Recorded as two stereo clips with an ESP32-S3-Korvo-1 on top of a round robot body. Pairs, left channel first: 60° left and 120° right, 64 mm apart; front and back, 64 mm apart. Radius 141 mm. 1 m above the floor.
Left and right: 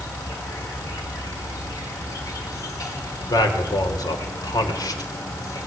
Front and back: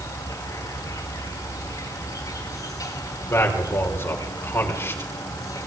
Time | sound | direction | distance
0.0 | an insect | 25° left | 5.5 m
3.3 | a man speaking | 50° left | 5 m